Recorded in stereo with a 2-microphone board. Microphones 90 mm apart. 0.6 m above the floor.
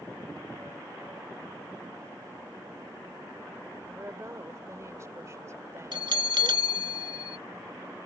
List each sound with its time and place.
4.0 s a woman speaking: 35° right (ahead or behind)
5.9 s a bell: 60° right (ahead or behind)